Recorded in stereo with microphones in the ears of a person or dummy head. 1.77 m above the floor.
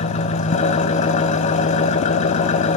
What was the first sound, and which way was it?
An engine running, 40° left (ahead or behind).